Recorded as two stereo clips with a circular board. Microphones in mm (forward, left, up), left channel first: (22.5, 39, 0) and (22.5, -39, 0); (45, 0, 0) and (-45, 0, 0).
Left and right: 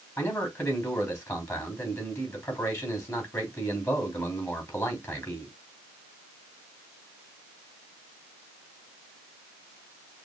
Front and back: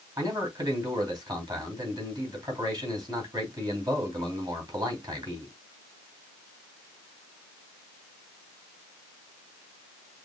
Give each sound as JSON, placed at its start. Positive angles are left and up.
{"t": 0.2, "sound": "a man speaking", "azimuth_deg": 145, "distance_m": 3.0}